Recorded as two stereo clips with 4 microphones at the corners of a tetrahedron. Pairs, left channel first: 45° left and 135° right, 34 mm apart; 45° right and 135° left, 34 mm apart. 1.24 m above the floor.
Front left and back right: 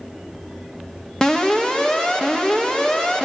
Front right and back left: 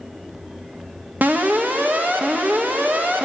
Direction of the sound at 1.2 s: 120° left.